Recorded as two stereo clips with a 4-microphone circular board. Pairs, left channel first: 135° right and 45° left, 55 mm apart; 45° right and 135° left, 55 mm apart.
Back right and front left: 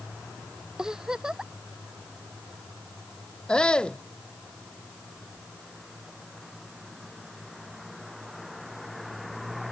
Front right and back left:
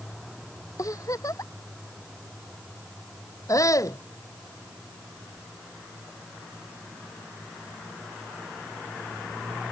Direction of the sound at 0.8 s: 30° right.